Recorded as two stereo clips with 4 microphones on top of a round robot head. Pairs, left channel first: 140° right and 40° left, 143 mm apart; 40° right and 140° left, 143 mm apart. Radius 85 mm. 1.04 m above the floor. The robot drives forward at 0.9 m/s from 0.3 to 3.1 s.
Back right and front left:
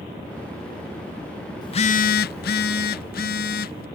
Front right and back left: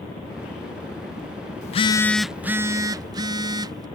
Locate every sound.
1.6 s a phone buzzing: 75° right; by 3.9 s 160° right